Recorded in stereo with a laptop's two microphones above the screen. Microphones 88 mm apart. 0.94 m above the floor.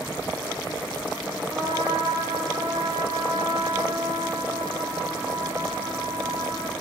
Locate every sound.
1.5 s a trumpet: 80° right, 1.6 m